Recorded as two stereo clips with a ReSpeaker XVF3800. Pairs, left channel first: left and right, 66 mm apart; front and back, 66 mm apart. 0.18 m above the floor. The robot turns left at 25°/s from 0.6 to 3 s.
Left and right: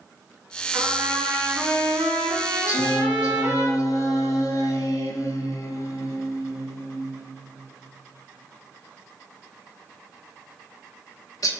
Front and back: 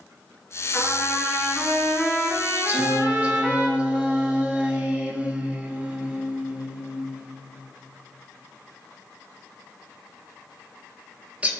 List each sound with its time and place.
0.7 s a trumpet: 70° right, 1.9 m; by 3.7 s 125° right, 1.9 m
2.7 s singing: 120° left, 0.6 m; by 11.5 s 115° left, 0.6 m